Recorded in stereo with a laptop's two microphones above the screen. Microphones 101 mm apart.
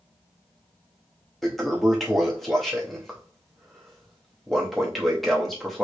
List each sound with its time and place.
1.4 s a toilet flushing: centre (ahead or behind), 0.7 m